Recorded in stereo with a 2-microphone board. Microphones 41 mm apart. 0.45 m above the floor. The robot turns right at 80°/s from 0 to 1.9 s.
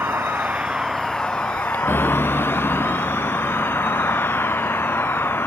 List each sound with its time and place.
0.0 s a vehicle: 80° right; by 5.5 s 75° left (ahead or behind)